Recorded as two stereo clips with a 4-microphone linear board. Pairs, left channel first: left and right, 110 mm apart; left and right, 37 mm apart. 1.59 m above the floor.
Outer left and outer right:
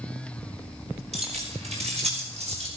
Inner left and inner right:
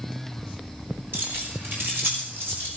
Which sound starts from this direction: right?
Keys jangling, at 1.1 s.